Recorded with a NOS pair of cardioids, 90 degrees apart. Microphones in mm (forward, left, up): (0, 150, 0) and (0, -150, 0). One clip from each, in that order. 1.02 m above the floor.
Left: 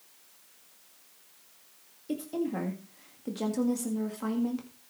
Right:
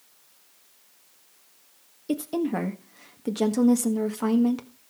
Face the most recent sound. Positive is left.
turn(degrees=-50)